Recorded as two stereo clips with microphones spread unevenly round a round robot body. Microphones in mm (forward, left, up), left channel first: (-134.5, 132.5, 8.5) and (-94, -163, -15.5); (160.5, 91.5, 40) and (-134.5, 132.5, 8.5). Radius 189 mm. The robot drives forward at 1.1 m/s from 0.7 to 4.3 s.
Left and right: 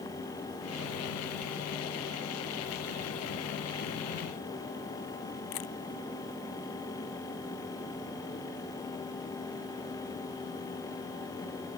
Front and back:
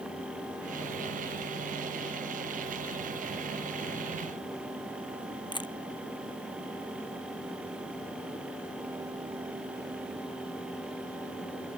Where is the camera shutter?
65° left.